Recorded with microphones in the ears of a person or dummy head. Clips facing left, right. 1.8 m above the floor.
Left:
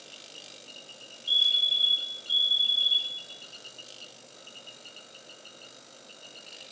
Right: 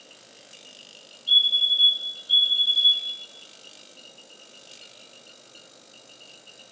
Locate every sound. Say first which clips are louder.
1.3 s a fire alarm: right 4 dB; 10° right (ahead or behind), 9.5 m